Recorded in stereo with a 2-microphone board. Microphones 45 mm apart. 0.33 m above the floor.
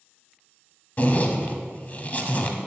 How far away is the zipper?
About 0.7 m.